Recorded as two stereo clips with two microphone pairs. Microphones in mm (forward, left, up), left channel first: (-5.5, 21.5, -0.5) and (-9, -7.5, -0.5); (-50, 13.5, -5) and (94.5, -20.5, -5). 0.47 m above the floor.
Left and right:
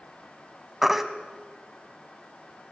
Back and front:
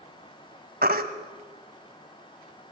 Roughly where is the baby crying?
Ahead.